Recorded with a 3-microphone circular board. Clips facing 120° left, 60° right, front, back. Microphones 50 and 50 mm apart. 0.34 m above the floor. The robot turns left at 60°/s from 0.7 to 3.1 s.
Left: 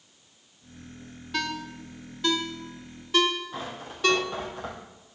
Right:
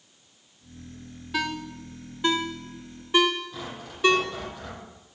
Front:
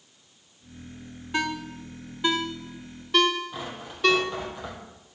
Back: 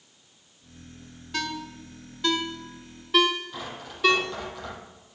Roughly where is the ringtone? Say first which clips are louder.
Right 2 dB, front 3 dB; ahead.